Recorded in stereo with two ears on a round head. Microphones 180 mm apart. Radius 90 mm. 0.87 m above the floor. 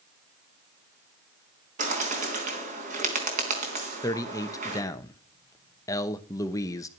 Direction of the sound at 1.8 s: 40° right (ahead or behind).